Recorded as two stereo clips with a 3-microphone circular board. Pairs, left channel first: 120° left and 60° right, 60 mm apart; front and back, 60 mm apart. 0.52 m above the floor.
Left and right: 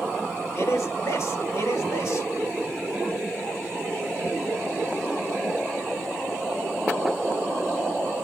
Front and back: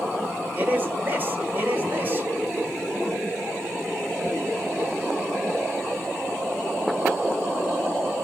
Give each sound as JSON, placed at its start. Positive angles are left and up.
{"t": 0.5, "sound": "a man speaking", "azimuth_deg": 130, "distance_m": 1.6}